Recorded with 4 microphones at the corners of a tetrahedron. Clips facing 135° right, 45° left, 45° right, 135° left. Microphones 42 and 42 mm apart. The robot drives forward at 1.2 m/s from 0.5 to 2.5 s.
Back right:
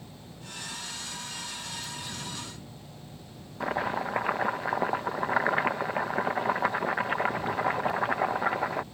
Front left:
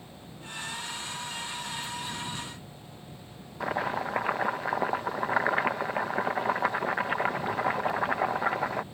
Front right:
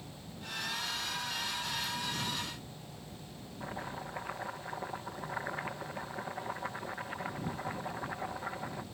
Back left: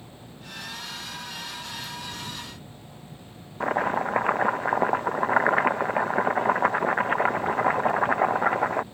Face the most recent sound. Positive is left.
turn(degrees=130)